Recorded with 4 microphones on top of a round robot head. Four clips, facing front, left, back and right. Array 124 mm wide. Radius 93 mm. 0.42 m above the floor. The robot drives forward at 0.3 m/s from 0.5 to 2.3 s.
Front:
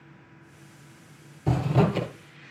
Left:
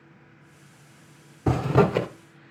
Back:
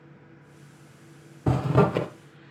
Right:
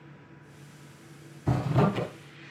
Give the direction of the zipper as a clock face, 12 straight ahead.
8 o'clock.